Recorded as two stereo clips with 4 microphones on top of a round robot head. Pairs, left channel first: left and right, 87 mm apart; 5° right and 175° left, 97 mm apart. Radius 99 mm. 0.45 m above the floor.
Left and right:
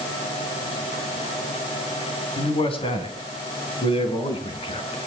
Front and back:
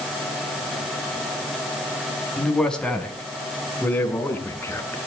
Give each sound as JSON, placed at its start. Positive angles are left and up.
{"t": 2.4, "sound": "a man speaking", "azimuth_deg": 80, "distance_m": 4.0}